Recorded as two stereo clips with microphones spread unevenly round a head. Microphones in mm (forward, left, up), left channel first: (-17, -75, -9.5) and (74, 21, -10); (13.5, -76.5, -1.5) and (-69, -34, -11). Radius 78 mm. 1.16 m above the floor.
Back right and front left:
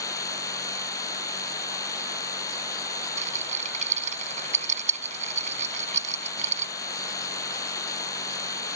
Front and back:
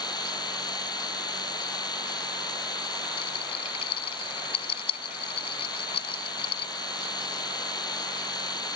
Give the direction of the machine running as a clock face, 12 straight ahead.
2 o'clock.